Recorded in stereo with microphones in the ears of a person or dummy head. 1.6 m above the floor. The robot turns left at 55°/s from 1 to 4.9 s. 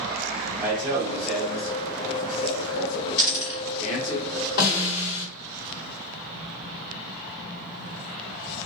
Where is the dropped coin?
35° left (ahead or behind), 1.9 m; by 3.6 s 40° left (ahead or behind), 1.9 m.